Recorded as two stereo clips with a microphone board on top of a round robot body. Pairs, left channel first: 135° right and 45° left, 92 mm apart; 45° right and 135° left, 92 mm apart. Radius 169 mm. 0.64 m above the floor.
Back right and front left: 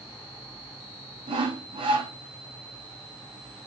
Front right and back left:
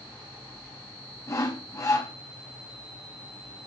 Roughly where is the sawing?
Ahead.